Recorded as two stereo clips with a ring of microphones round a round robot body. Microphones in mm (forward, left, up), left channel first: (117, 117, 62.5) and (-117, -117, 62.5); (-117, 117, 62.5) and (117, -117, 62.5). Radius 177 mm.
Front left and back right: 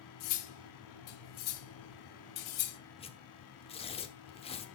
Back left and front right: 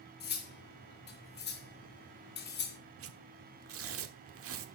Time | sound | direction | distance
0.2 | cutlery clinking | 75° left | 1.6 m
3.0 | tearing paper | 20° right | 1.3 m